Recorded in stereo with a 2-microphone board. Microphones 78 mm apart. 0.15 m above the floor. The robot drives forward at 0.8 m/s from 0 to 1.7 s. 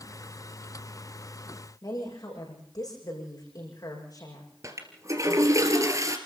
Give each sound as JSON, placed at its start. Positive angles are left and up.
{"t": 1.8, "sound": "a woman speaking", "side_deg": 55, "distance_m": 8.0}
{"t": 4.6, "sound": "a toilet flushing", "side_deg": -45, "distance_m": 2.0}